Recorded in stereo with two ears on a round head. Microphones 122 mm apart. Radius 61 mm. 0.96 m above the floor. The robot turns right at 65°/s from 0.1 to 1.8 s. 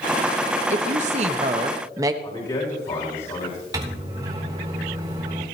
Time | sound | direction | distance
0.7 | a woman speaking | 100° right | 1.2 m
2.2 | a man speaking | 35° left (ahead or behind) | 4.5 m
3.7 | a microwave | 30° right (ahead or behind) | 3.5 m